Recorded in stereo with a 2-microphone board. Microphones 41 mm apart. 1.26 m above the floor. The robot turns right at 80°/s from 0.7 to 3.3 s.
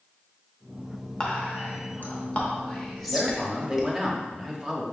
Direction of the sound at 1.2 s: 20° left (ahead or behind).